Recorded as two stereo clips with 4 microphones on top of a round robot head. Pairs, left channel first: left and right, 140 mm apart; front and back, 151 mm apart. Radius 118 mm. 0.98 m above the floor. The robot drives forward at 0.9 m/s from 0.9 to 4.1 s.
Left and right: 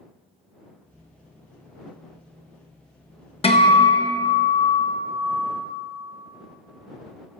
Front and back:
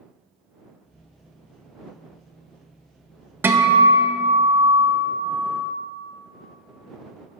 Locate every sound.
3.4 s a guitar: 110° left, 1.1 m; by 5.7 s 140° left, 1.3 m